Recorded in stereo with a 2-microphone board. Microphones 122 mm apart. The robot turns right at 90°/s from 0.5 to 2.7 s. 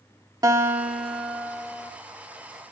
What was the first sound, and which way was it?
A guitar, 50° right.